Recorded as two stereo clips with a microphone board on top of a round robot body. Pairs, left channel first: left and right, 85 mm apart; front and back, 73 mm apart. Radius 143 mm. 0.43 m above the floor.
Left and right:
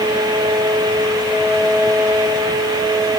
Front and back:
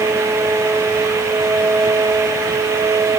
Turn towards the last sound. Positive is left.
No sound to turn to.